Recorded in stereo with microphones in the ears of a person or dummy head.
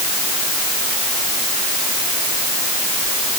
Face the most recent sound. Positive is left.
No sound to turn to.